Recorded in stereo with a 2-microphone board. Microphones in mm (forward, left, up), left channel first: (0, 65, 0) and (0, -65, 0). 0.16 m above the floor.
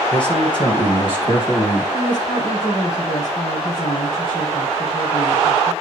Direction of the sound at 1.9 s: 35° left (ahead or behind).